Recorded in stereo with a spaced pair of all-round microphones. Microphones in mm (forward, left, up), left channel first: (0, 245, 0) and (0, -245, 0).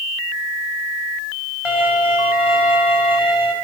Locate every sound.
1.6 s a violin: 80° left, 6 m